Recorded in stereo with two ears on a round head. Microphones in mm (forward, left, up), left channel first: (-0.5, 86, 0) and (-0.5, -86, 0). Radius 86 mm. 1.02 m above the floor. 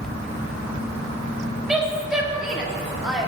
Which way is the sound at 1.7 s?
5° right (ahead or behind).